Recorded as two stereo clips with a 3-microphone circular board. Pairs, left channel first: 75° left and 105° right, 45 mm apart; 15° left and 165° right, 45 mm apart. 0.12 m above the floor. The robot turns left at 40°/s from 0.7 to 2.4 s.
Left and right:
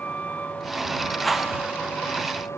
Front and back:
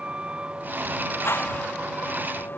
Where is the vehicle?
130° left; by 2.6 s 60° left.